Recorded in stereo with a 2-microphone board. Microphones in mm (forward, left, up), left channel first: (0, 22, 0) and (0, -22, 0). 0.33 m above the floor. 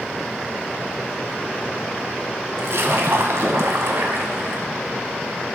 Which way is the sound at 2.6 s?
65° right (ahead or behind).